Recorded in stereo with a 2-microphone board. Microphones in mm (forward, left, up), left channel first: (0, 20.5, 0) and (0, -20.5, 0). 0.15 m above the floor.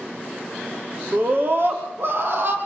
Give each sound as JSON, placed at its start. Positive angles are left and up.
{"t": 1.1, "sound": "a scream", "side_deg": -55, "distance_m": 6.0}